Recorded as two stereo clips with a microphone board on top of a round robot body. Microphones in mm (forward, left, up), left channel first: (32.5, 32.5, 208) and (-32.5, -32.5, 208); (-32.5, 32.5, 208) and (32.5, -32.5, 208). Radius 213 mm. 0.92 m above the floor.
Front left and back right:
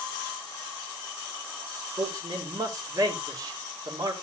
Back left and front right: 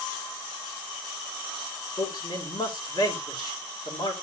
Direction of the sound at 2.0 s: 175° left.